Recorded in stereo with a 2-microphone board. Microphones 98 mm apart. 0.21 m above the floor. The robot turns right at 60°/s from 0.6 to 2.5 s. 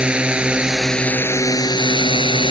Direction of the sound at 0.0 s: 10° right.